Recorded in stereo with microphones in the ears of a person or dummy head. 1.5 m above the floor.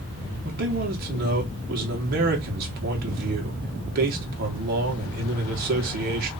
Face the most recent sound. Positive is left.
turn(degrees=-50)  # may be behind; listen again after turning